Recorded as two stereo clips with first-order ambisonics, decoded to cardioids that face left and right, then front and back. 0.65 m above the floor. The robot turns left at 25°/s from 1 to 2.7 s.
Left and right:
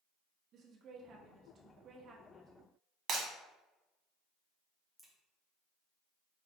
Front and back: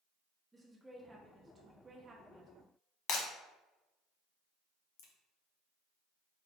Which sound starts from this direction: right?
A woman speaking, at 0.5 s.